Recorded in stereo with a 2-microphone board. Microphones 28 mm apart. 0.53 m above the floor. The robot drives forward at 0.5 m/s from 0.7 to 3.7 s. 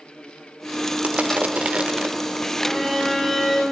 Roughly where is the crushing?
Right.